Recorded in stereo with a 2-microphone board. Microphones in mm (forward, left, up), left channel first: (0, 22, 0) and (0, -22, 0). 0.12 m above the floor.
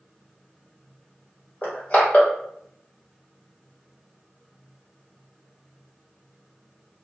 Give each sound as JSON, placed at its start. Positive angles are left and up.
{"t": 1.6, "sound": "crushing", "side_deg": 35, "distance_m": 1.7}